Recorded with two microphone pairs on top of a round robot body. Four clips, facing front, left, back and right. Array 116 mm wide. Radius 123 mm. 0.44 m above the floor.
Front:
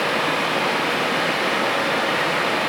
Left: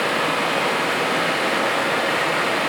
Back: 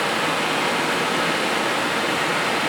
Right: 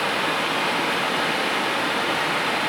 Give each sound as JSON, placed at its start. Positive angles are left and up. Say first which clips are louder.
{"t": 0.0, "sound": "running water", "louder": "left 3 dB, front 1 dB", "azimuth_deg": 50, "distance_m": 1.5}